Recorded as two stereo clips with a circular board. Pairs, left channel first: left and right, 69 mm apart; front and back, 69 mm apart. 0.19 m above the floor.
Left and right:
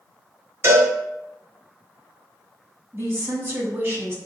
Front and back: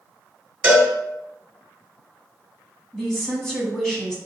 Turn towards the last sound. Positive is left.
turn(degrees=-80)